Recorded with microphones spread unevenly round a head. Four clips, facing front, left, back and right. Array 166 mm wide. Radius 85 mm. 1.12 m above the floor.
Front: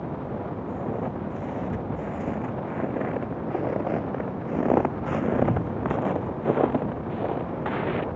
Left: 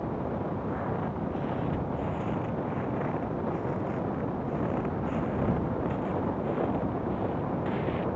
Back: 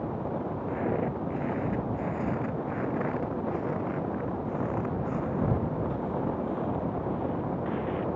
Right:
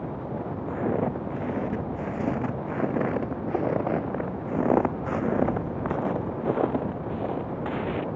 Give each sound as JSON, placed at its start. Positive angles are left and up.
{"t": 0.7, "sound": "footsteps", "azimuth_deg": -115}